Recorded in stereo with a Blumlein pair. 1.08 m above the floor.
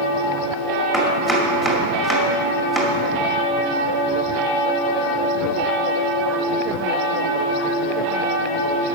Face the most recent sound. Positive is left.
turn(degrees=5)